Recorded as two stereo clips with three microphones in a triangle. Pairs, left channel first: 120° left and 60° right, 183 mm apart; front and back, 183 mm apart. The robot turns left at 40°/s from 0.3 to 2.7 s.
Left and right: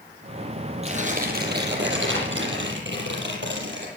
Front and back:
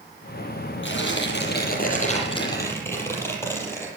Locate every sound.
0.8 s tearing paper: 5° right, 7 m; by 3.9 s 75° right, 7 m